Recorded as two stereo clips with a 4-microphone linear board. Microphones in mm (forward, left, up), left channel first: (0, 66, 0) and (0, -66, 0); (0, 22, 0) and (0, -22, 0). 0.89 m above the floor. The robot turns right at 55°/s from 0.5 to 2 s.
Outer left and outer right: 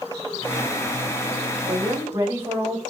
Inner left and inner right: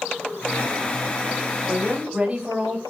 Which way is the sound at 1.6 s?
40° right (ahead or behind).